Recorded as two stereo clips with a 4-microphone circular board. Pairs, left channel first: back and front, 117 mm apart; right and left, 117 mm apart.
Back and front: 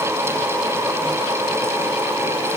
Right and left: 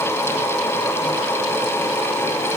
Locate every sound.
Only background noise.